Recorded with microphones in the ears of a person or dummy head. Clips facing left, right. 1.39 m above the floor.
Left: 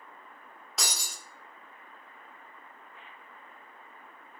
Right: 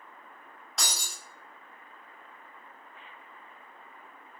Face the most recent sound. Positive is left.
turn(degrees=-5)  # may be behind; listen again after turning